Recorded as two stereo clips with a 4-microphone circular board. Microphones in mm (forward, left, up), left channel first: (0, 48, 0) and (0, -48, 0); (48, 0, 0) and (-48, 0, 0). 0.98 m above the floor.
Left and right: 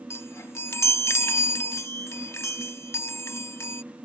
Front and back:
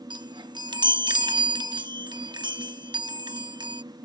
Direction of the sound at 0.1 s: 150° left.